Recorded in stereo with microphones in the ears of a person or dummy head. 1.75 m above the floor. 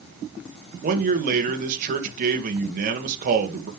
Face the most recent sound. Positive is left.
turn(degrees=-50)  # may be behind; listen again after turning